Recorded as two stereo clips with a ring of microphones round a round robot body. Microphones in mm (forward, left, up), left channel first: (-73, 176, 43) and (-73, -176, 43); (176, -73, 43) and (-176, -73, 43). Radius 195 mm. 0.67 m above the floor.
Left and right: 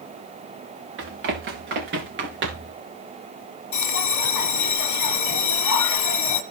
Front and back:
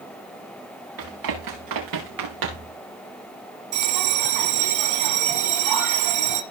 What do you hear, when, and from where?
1.0 s running footsteps: 145° right, 5 m; by 2.8 s 155° right, 4 m
3.7 s a bell: 130° left, 1.4 m